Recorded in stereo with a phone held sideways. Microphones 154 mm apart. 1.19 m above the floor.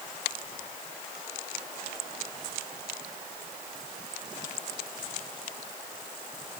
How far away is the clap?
No clap in this recording.